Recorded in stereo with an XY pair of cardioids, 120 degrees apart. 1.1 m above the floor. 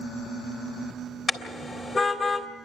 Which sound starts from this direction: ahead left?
A car horn, at 1.3 s.